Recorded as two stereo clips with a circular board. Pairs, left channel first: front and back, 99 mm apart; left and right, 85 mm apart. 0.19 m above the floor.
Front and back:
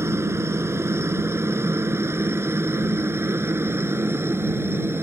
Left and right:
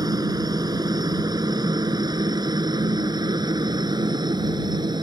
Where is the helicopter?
120° right; by 5.0 s 115° right.